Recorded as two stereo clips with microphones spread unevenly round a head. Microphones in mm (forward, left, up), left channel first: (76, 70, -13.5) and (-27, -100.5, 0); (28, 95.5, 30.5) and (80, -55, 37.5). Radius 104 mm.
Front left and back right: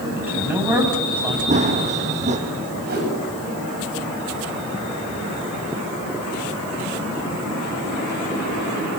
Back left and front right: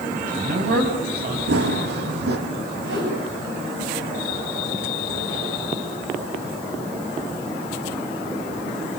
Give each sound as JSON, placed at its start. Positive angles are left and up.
{"t": 0.2, "sound": "a man speaking", "azimuth_deg": -40, "distance_m": 8.0}
{"t": 1.5, "sound": "running footsteps", "azimuth_deg": -70, "distance_m": 3.5}
{"t": 2.9, "sound": "a whoosh", "azimuth_deg": -80, "distance_m": 8.5}